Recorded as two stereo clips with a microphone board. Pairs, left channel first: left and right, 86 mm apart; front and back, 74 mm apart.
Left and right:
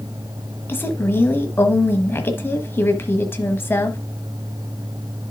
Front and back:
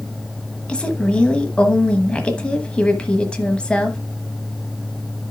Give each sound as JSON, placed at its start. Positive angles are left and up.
{"t": 0.7, "sound": "a woman speaking", "azimuth_deg": 60, "distance_m": 1.1}